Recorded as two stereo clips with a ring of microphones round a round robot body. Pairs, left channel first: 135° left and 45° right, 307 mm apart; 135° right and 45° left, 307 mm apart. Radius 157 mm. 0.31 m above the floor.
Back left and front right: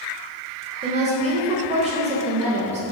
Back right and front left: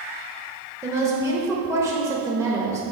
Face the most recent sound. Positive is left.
turn(degrees=-20)